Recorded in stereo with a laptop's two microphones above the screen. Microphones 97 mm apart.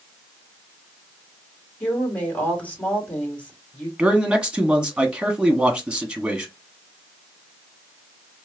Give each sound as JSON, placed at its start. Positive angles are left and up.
{"t": 1.8, "sound": "a woman speaking", "side_deg": 15, "distance_m": 2.5}
{"t": 4.0, "sound": "a man speaking", "side_deg": -10, "distance_m": 1.3}